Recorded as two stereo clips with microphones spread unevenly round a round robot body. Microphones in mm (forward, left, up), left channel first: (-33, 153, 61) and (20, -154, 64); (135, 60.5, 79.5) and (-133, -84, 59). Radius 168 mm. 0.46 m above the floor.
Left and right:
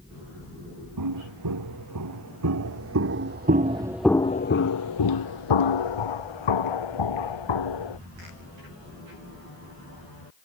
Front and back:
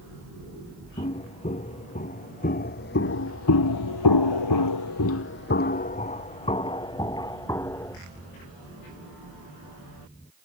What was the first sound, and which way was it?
Footsteps, 45° right.